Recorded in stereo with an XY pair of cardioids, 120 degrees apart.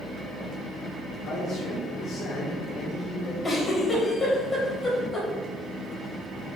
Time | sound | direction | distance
1.3 | a man speaking | 70° left | 1.6 m
3.4 | a giggle | 20° left | 3 m